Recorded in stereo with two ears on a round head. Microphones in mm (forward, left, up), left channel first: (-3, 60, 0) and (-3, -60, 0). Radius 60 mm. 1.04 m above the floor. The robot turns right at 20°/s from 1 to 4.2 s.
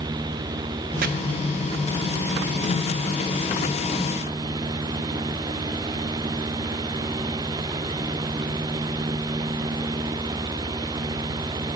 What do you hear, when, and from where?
1.0 s chopping: 70° right (ahead or behind), 1.1 m; by 1.1 s 75° right (ahead or behind), 1.1 m